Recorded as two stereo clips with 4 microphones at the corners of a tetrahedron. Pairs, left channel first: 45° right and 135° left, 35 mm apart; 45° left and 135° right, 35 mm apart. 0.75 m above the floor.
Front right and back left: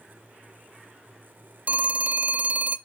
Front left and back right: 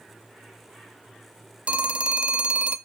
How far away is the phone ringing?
About 0.7 m.